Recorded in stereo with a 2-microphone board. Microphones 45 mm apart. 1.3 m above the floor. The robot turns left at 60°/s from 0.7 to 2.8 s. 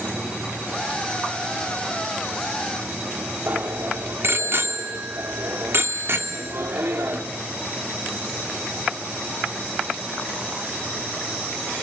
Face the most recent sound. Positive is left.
turn(degrees=-55)  # may be behind; listen again after turning